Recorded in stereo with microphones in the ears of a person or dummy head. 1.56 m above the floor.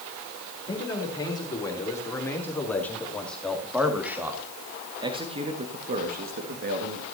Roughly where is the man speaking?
Left.